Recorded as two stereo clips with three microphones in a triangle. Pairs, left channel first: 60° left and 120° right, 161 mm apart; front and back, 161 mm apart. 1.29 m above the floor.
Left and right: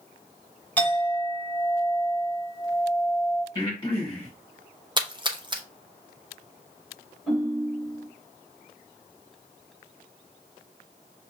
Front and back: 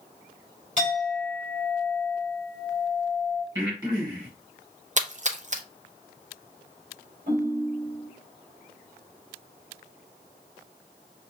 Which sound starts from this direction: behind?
A splash, at 5.0 s.